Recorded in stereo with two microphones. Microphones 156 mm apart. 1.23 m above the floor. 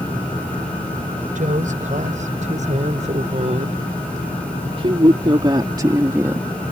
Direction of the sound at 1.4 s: 55° right (ahead or behind).